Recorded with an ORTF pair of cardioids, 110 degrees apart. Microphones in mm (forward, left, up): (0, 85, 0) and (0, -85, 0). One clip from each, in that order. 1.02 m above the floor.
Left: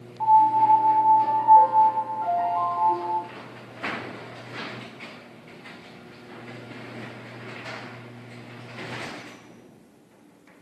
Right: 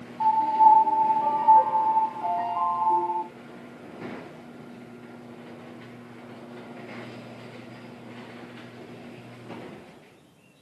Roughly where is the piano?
Ahead right.